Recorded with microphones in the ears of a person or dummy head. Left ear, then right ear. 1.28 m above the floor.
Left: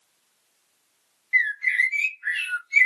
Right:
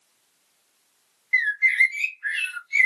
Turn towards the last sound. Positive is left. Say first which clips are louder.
# right 2 dB
turn(degrees=-5)  # may be behind; listen again after turning